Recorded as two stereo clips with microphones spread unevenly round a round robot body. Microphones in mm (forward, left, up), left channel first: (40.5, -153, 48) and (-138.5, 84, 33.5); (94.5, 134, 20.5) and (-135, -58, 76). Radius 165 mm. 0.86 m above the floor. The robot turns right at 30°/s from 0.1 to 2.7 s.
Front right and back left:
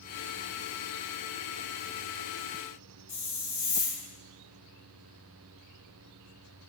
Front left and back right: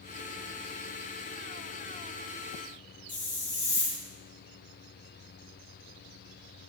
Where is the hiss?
5° left, 1.7 m.